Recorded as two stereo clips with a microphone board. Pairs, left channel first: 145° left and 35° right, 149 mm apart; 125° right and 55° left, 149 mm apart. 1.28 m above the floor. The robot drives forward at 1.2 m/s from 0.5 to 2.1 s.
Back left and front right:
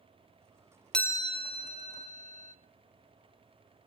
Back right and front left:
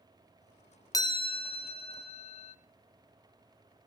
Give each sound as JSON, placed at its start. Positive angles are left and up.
{"t": 0.9, "sound": "a chime", "azimuth_deg": -135, "distance_m": 0.5}